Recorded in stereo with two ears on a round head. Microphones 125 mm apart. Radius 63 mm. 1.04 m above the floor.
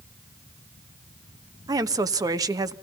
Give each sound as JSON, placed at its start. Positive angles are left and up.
{"t": 1.7, "sound": "a woman speaking", "side_deg": -25, "distance_m": 1.0}